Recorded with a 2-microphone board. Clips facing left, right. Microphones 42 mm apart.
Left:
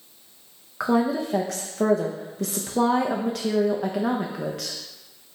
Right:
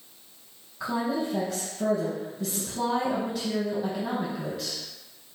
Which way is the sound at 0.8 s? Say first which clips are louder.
Left 6 dB; 70° left (ahead or behind).